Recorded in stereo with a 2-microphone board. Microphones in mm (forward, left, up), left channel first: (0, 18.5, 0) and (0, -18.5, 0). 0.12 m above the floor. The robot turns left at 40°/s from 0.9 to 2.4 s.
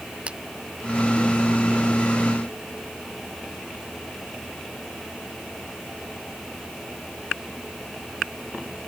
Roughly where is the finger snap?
Right.